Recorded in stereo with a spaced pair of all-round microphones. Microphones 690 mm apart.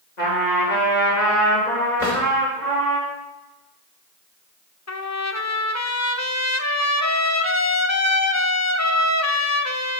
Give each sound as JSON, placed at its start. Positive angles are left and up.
{"t": 0.2, "sound": "a trumpet", "side_deg": 75, "distance_m": 3.0}
{"t": 2.0, "sound": "a drawer", "side_deg": 75, "distance_m": 3.0}
{"t": 4.9, "sound": "a trumpet", "side_deg": 25, "distance_m": 0.5}